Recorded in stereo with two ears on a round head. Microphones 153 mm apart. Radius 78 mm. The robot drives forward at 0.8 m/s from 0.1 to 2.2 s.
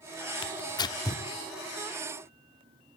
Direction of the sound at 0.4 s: 30° left (ahead or behind).